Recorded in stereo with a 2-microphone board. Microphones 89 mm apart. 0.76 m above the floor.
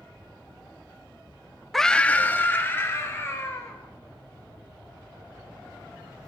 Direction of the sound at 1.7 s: Centre (ahead or behind).